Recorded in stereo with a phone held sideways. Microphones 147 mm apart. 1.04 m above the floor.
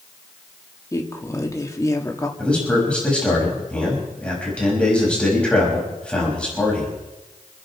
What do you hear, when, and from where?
0.9 s a woman speaking: 20° left (ahead or behind), 2.5 m
2.4 s a man speaking: 5° left (ahead or behind), 6 m